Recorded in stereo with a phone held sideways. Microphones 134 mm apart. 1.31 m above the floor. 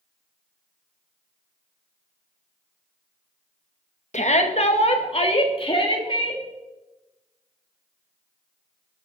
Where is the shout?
60° left (ahead or behind), 1.6 m; by 6.4 s 40° left (ahead or behind), 3 m.